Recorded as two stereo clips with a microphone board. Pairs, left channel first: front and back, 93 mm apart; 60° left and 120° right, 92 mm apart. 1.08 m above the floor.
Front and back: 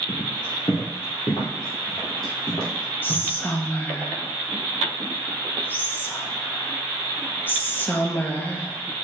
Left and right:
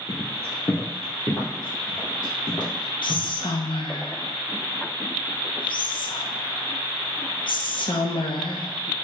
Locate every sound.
0.1 s footsteps: 10° left, 1.7 m; by 3.3 s 30° left, 3 m
3.0 s whispering: 65° left, 0.7 m